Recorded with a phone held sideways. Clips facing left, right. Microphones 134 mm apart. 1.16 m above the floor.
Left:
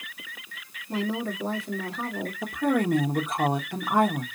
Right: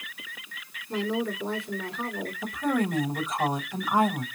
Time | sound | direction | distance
0.9 | a woman speaking | 40° left (ahead or behind) | 2.5 m
2.4 | a woman speaking | 60° left (ahead or behind) | 1.4 m